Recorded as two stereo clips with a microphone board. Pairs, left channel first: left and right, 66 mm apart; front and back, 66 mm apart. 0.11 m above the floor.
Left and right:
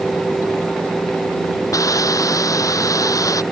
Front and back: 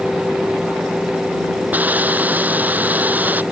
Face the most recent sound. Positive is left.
turn(degrees=115)